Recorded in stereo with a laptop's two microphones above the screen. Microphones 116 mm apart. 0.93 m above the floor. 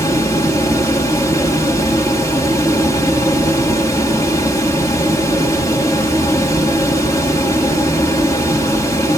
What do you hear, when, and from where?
0.0 s a fan: 25° left (ahead or behind), 2.5 m